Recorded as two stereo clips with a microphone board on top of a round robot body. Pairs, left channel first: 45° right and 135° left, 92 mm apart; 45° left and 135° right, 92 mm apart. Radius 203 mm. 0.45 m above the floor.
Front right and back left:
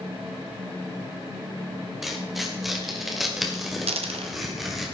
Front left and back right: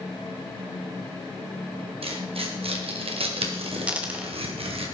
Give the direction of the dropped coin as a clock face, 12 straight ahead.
7 o'clock.